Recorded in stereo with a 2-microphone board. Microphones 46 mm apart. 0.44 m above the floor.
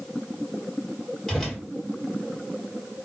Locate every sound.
1.3 s a whoosh: 5° left (ahead or behind), 1.3 m